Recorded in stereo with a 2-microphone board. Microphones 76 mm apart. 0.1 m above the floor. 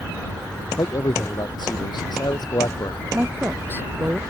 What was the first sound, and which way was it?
A man speaking, 65° left (ahead or behind).